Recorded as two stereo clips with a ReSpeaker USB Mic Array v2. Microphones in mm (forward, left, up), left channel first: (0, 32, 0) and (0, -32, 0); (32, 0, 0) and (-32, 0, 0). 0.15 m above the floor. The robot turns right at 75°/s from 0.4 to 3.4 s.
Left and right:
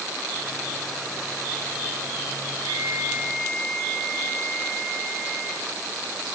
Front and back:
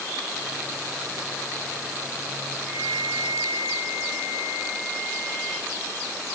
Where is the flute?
55° right, 3 m; by 5.7 s 5° left, 3 m.